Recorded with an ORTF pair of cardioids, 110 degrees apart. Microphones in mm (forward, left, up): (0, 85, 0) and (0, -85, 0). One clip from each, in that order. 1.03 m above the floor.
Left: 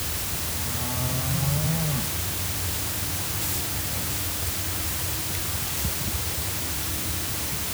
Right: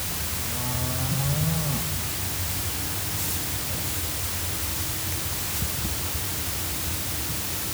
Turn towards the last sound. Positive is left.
No sound to turn to.